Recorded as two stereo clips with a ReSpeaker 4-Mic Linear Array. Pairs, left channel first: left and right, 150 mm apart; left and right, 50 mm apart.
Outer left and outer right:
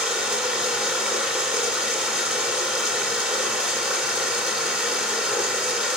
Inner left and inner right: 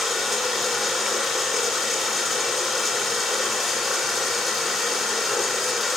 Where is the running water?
5° right (ahead or behind), 2.5 m.